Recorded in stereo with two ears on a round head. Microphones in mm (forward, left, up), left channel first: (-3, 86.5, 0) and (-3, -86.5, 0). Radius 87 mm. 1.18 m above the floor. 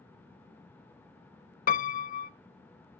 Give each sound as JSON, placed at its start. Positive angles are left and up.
{"t": 1.7, "sound": "a piano", "side_deg": 45, "distance_m": 0.5}